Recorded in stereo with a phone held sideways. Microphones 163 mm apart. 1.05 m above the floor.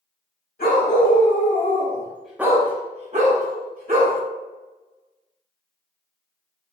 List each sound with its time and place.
0.6 s a dog barking: 65° left (ahead or behind), 1.3 m; by 4.2 s 65° right (ahead or behind), 1.5 m